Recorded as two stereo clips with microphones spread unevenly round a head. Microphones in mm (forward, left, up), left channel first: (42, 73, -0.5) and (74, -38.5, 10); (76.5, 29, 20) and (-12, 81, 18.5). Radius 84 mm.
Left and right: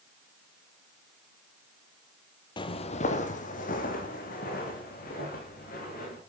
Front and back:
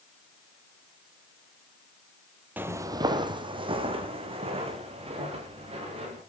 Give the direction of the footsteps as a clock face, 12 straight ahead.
9 o'clock.